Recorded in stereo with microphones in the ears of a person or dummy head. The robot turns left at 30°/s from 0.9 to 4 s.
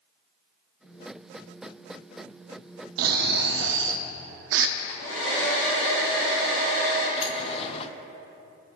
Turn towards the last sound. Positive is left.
turn(degrees=35)  # may be behind; listen again after turning